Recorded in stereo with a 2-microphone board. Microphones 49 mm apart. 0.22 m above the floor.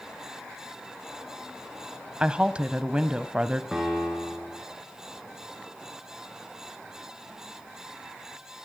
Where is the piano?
5° right (ahead or behind), 5 m.